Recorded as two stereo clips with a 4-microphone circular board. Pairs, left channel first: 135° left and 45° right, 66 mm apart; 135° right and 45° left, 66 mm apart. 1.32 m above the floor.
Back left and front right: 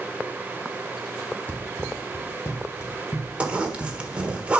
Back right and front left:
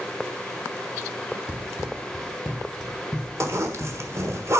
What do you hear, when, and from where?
1.5 s running footsteps: 100° left, 1.5 m; by 4.4 s 150° left, 2.5 m
3.4 s a zipper: 25° left, 1.3 m